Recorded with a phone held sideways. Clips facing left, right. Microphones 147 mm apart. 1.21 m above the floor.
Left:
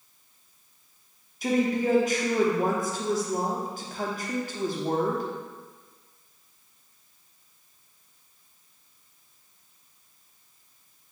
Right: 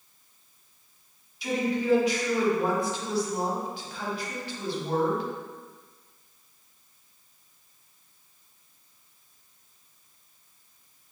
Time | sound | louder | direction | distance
1.4 | a woman speaking | left 3 dB | 45° left (ahead or behind) | 0.7 m